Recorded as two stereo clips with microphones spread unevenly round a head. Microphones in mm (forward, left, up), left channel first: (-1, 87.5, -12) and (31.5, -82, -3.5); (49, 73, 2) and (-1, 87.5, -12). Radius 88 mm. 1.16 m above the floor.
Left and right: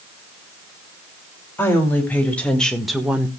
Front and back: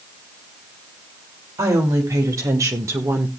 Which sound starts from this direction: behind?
A woman speaking, at 1.6 s.